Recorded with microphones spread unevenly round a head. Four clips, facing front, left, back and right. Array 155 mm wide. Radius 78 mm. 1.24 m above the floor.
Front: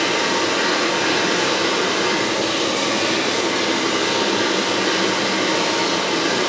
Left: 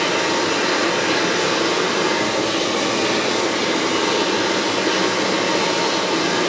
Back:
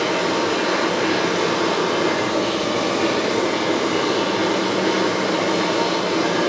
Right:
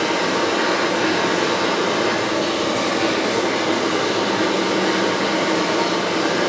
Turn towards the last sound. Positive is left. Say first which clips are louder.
# even, even
turn(degrees=-110)